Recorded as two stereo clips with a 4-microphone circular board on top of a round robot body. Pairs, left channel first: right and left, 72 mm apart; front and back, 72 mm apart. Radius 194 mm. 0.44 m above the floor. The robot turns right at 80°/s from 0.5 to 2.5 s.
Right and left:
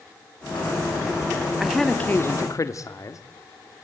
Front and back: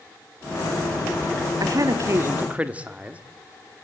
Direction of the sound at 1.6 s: 175° left.